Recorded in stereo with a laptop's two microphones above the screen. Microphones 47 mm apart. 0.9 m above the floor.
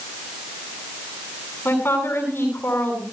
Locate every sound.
1.6 s a woman speaking: 55° left (ahead or behind), 8.5 m